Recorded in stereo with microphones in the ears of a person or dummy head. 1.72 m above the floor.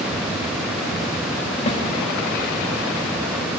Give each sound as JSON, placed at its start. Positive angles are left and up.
{"t": 1.7, "sound": "a snare drum", "side_deg": 30, "distance_m": 1.3}